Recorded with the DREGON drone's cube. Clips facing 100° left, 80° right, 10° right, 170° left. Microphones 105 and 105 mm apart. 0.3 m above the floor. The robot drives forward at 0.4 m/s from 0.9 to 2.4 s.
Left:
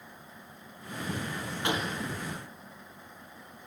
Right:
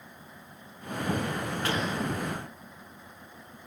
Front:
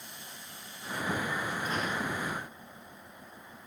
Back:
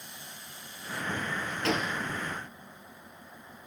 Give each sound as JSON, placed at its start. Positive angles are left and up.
{"t": 1.6, "sound": "a gunshot", "azimuth_deg": 175, "distance_m": 4.0}